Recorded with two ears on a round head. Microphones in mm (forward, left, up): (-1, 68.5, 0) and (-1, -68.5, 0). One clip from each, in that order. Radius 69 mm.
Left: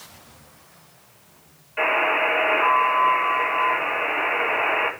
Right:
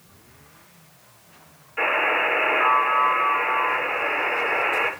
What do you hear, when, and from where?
1.8 s a buzzer: 10° left (ahead or behind), 9.5 m